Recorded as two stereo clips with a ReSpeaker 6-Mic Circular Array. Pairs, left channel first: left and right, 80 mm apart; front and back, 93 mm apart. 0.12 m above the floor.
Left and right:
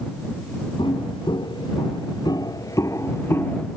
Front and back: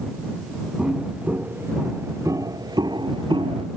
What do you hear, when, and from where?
0.8 s footsteps: 105° left; by 3.7 s 155° left